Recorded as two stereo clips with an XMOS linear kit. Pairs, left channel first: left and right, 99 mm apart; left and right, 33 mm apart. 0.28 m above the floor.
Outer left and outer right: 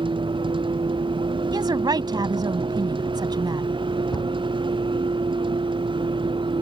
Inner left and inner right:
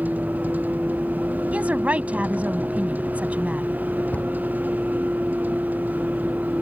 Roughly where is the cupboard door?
Left.